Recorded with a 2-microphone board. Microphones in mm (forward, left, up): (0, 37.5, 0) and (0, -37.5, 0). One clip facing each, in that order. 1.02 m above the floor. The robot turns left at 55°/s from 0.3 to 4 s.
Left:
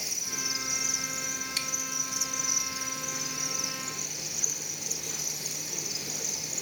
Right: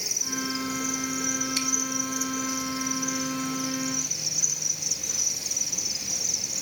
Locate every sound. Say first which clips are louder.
0.0 s an insect: right 7 dB; 20° right, 4 m; by 6.6 s 140° left, 4 m